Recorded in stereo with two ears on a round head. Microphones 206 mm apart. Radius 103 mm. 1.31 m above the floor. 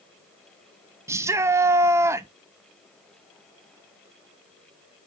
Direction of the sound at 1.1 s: 10° right (ahead or behind).